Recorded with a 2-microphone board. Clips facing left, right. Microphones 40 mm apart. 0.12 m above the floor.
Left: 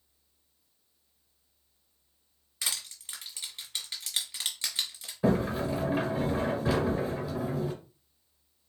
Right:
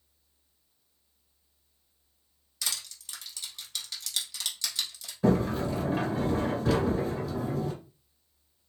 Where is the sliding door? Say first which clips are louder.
Right 1 dB; 10° left (ahead or behind), 1.5 m.